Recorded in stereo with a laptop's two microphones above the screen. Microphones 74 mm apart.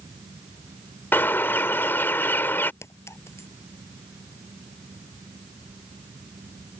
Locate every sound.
0.0 s a fan: 85° right
1.1 s a bird: 30° left (ahead or behind)
2.8 s a clink: 40° left (ahead or behind)